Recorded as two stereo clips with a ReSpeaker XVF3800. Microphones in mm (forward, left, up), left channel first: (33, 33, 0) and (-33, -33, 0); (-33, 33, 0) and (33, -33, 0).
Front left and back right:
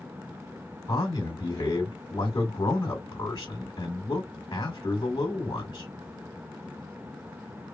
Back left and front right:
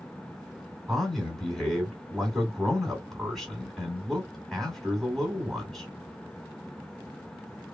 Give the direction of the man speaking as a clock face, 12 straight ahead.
10 o'clock.